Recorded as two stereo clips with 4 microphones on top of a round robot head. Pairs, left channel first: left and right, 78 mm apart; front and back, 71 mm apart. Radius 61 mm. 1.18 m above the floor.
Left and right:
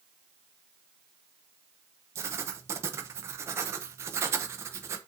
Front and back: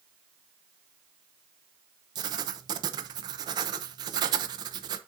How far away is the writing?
About 0.9 m.